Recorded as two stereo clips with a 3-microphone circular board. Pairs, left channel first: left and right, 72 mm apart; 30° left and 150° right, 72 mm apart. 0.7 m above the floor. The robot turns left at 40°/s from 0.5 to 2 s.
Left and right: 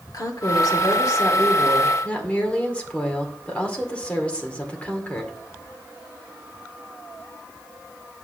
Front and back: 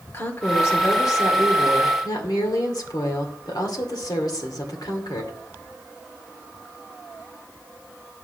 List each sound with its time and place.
0.1 s a woman speaking: 80° left, 2 m; by 5.4 s 20° left, 2 m